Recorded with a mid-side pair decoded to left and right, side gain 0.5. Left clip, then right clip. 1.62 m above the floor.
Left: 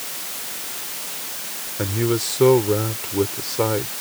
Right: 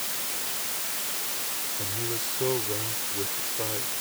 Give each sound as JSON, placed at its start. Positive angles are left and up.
{"t": 1.8, "sound": "a man speaking", "azimuth_deg": 70}